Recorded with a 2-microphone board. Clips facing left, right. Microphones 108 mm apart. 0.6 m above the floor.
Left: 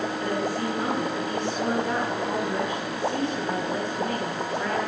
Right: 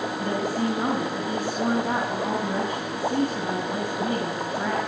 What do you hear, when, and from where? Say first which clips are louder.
0.2 s a woman speaking: right 3 dB; 50° right (ahead or behind), 5 m